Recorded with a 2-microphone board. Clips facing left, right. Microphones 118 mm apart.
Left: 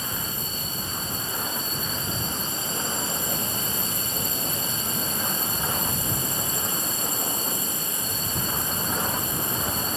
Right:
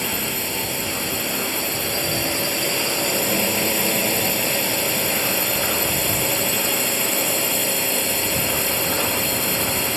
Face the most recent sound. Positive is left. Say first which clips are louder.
# right 7 dB
turn(degrees=-80)